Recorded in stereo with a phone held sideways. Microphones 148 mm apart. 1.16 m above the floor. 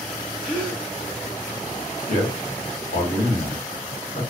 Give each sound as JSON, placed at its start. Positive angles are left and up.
{"t": 0.4, "sound": "a gasp", "side_deg": 35, "distance_m": 1.4}
{"t": 2.1, "sound": "a man speaking", "side_deg": 80, "distance_m": 1.4}